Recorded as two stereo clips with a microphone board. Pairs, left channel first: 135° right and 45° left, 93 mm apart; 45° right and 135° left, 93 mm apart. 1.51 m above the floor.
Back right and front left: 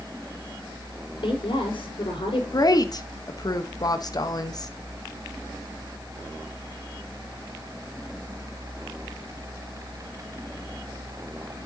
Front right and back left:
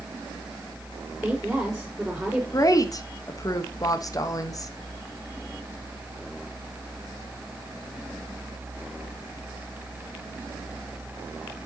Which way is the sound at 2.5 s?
95° right.